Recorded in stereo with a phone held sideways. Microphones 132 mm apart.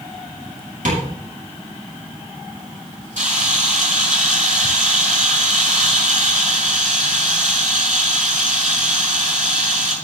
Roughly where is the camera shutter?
Right.